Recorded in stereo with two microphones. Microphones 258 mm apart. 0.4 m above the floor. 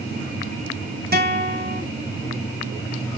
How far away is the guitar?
About 1.0 m.